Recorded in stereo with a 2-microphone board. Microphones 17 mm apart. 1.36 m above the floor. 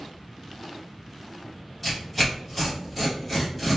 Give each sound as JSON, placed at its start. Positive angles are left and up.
{"t": 1.8, "sound": "tearing paper", "side_deg": -5, "distance_m": 1.3}